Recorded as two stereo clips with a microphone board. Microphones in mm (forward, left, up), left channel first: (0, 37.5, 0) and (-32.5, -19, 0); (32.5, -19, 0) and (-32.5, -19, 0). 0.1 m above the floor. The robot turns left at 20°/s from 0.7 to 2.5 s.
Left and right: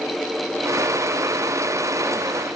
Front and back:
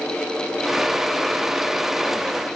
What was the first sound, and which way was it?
Only background noise.